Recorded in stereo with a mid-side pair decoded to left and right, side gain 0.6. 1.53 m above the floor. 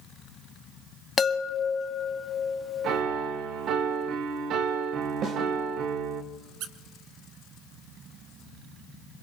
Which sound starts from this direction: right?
A squeak, at 6.6 s.